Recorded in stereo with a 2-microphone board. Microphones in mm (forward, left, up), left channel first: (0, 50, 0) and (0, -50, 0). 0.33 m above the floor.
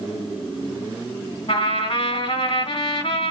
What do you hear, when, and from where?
1.5 s a trumpet: 65° left (ahead or behind), 3.5 m